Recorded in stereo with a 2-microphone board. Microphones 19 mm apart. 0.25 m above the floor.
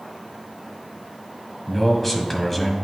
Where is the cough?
I don't hear a cough.